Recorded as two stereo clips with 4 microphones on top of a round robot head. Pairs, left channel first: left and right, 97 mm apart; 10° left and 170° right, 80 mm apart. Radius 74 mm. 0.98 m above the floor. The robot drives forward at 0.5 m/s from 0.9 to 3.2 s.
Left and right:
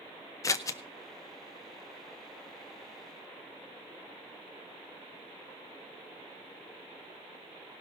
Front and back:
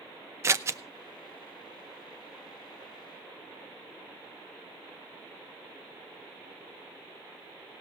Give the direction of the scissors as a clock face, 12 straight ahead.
7 o'clock.